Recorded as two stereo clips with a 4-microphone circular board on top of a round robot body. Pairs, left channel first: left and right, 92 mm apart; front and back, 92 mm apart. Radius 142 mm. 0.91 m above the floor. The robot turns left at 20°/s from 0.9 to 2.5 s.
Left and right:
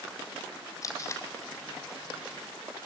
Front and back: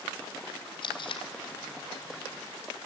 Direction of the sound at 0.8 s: 35° left.